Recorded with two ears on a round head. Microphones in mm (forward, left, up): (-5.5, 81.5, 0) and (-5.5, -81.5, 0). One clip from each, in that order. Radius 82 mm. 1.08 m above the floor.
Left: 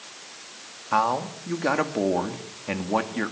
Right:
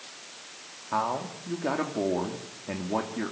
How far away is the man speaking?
About 2 m.